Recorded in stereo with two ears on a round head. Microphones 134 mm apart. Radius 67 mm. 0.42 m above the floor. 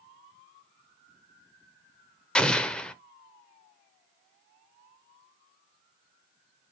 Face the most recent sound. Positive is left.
turn(degrees=5)  # may be behind; listen again after turning